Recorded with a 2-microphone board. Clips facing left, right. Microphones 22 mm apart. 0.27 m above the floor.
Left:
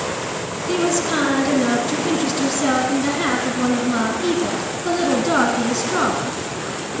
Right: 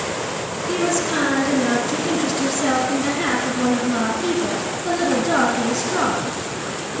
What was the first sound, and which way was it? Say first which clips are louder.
A woman speaking: left 2 dB; 5° left (ahead or behind).